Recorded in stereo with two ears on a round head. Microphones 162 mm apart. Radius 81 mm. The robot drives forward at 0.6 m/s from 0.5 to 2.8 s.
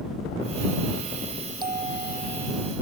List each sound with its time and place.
1.6 s a bell: 25° right (ahead or behind)